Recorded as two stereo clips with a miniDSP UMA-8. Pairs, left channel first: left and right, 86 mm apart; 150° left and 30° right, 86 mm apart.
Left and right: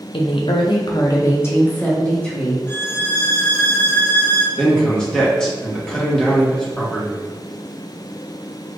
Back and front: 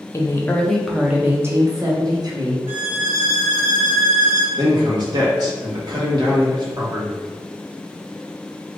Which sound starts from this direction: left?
A woman speaking, at 0.1 s.